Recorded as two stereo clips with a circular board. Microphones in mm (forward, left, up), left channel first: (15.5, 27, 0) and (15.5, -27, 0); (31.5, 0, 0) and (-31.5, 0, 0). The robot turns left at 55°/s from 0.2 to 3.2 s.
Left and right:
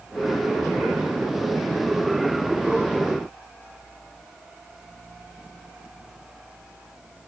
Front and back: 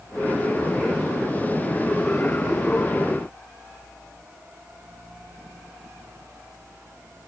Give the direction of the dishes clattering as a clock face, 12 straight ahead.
I don't hear dishes clattering.